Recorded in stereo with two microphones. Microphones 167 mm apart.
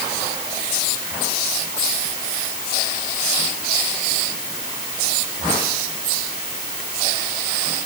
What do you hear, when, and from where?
Only background noise.